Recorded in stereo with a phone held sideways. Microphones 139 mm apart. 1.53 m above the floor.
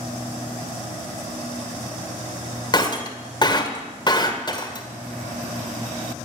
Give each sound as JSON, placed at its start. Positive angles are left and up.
{"t": 2.7, "sound": "breaking glass", "side_deg": 30, "distance_m": 1.9}